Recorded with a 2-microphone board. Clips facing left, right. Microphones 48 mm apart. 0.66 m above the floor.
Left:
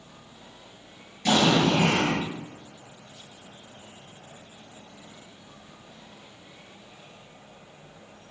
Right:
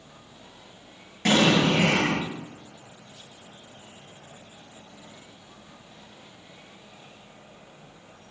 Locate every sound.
1.2 s an explosion: 50° right (ahead or behind), 8 m